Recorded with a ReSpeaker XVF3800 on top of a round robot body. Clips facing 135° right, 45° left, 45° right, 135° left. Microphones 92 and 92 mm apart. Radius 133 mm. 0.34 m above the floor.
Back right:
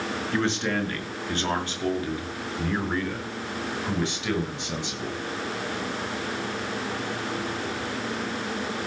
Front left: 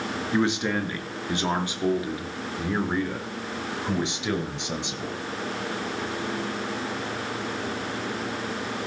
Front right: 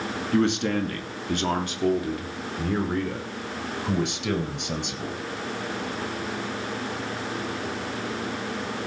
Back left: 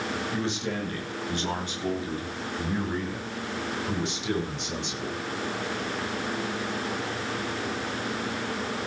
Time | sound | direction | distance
0.3 | a man speaking | 30° right | 5.5 m